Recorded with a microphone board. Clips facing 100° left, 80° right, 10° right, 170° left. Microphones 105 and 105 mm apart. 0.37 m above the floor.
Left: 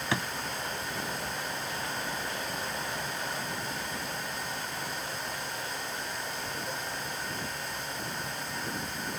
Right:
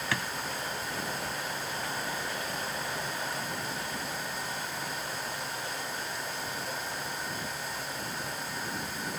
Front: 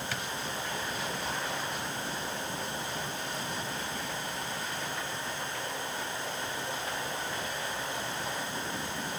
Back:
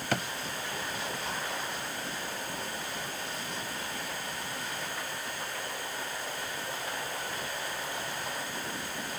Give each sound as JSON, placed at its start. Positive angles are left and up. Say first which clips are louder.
{"t": 0.1, "sound": "a drawer", "louder": "left 3 dB, back 6 dB", "azimuth_deg": 160}